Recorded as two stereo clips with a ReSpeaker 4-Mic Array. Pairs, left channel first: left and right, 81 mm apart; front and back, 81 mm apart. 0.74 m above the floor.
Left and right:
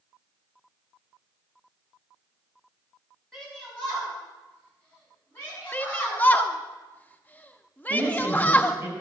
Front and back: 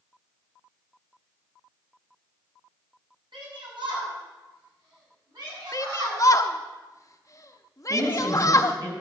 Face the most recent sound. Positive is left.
turn(degrees=-155)